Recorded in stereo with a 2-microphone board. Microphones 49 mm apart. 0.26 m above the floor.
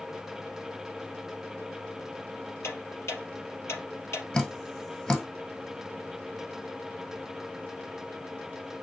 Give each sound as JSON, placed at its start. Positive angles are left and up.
{"t": 2.6, "sound": "ticking", "side_deg": 65, "distance_m": 3.5}
{"t": 4.3, "sound": "dripping", "side_deg": 20, "distance_m": 1.5}